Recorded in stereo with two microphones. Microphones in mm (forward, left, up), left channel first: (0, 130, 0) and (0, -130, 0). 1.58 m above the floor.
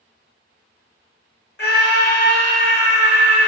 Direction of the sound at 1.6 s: 40° left (ahead or behind).